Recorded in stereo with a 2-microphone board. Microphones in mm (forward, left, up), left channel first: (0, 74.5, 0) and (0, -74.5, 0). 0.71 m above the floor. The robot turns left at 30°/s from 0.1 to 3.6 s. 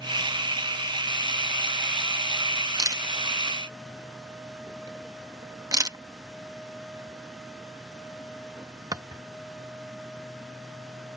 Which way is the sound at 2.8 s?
25° right (ahead or behind).